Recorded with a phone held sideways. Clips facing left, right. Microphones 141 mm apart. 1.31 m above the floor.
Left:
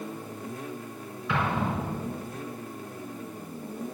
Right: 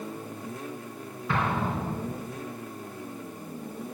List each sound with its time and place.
1.3 s an explosion: 45° right (ahead or behind), 4 m